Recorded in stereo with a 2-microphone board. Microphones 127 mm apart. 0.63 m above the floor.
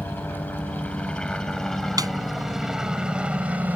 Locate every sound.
0.0 s a helicopter: 15° left (ahead or behind); by 3.8 s 10° right (ahead or behind)
2.0 s a snare drum: 30° right (ahead or behind)